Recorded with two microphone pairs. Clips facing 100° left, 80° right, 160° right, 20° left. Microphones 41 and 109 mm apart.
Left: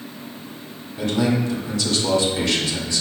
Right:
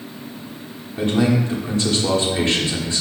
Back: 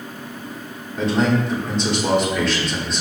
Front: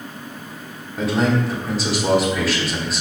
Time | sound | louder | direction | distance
1.0 | a man speaking | right 2 dB, back 1 dB | 60° right | 0.9 m